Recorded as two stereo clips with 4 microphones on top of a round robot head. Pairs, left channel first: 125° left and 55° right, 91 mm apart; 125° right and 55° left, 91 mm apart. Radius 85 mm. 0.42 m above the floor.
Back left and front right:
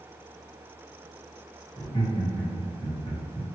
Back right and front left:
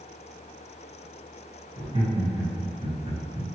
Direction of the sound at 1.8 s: 75° left.